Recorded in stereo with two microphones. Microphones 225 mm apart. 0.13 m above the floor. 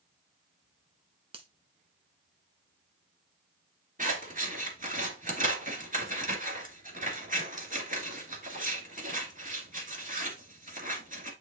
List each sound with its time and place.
1.3 s a finger snap: 25° right (ahead or behind), 1.1 m
4.0 s scissors: 35° right (ahead or behind), 2.5 m